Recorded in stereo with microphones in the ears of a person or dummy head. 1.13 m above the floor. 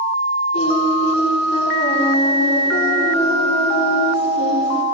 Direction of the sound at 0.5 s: 35° left (ahead or behind).